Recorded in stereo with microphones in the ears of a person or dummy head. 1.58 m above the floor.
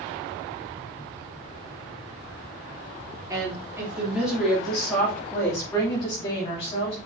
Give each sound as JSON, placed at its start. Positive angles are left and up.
{"t": 3.3, "sound": "a woman speaking", "side_deg": -10, "distance_m": 3.0}